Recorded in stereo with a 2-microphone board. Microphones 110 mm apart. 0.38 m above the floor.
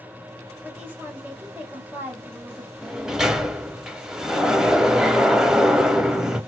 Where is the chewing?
No chewing in this recording.